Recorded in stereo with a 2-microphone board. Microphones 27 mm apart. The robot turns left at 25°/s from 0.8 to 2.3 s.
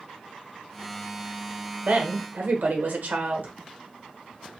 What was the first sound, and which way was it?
A woman speaking, 65° right (ahead or behind).